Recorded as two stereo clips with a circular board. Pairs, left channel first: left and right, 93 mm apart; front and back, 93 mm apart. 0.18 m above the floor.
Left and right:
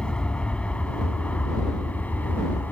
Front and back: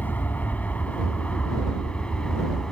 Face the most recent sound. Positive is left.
turn(degrees=65)